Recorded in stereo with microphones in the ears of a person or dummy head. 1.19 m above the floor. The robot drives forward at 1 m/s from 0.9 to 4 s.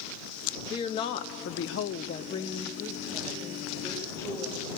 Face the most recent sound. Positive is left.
turn(degrees=10)  # may be behind; listen again after turning